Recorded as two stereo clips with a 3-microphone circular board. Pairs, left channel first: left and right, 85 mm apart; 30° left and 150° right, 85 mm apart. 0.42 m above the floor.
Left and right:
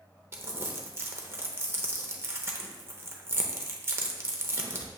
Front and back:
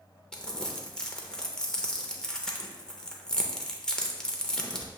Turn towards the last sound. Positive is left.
turn(degrees=-50)